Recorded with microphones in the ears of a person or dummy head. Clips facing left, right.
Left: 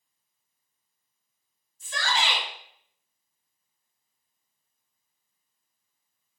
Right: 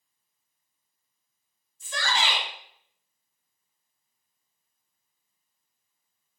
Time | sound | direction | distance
1.8 | a shout | 85° right | 1.3 m